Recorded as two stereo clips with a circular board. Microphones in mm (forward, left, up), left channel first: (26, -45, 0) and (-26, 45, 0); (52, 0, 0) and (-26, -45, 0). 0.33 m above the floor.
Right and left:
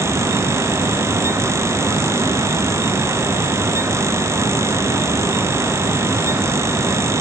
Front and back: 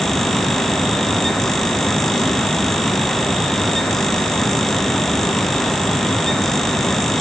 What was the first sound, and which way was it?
Only background noise.